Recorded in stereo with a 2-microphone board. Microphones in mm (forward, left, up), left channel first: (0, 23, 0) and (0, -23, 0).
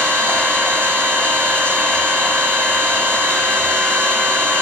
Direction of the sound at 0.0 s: 65° right (ahead or behind).